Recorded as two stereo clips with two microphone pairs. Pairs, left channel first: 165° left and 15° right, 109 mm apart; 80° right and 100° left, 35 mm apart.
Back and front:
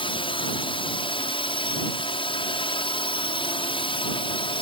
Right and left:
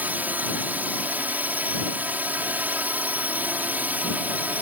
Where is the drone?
130° left.